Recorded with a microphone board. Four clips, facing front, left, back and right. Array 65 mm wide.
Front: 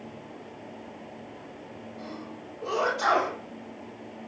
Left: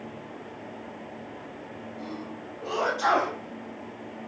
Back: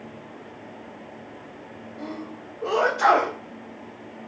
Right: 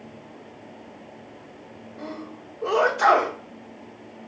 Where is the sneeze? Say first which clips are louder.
Right 3 dB, back 6 dB; 125° right, 6 m.